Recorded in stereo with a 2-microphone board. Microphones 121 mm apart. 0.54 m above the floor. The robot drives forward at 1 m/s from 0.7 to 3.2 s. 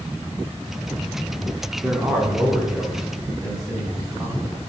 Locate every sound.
1.8 s a man speaking: 10° right (ahead or behind), 1.0 m; by 4.5 s 5° right (ahead or behind), 2 m